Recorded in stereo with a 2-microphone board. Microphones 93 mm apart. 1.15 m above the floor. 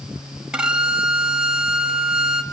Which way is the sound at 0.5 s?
10° right (ahead or behind).